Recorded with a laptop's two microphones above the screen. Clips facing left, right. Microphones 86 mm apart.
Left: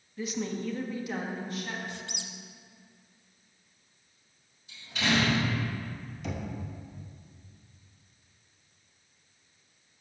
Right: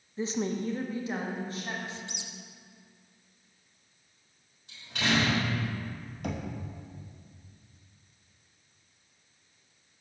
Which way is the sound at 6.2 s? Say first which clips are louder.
Right 2 dB; 50° right (ahead or behind).